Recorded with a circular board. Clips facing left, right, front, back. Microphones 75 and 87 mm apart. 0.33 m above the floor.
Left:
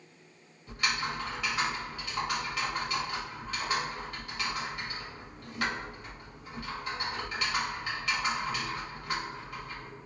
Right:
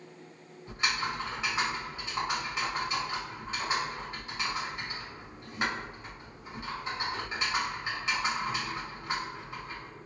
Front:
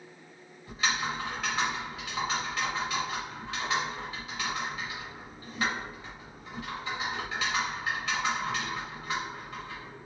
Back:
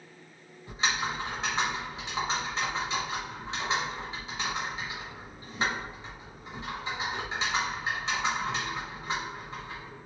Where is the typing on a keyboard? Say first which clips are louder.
Even, even; 140° right, 1.3 m.